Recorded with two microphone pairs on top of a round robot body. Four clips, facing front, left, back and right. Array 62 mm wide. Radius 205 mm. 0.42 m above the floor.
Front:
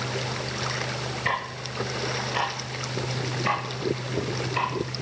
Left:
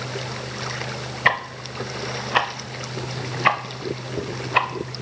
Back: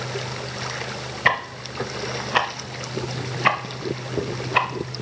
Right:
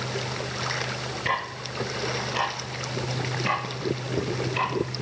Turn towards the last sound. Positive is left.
turn(degrees=120)